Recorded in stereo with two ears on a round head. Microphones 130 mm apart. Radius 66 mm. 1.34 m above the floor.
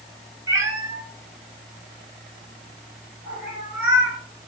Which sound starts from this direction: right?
A cat meowing, at 0.5 s.